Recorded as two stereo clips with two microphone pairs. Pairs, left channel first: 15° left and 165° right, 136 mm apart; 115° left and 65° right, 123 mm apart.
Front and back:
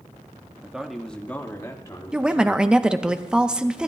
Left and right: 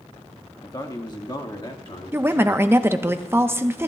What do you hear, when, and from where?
0.6 s a man speaking: 125° left, 1.0 m; by 3.1 s 60° left, 2 m
2.1 s a woman speaking: 100° right, 0.7 m